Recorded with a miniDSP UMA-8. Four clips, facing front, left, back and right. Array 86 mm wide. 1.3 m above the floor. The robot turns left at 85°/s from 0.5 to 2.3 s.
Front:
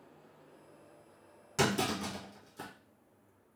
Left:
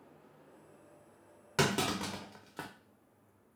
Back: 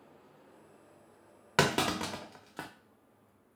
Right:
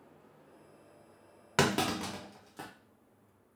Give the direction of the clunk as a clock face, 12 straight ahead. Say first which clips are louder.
Right 2 dB, back 3 dB; 5 o'clock.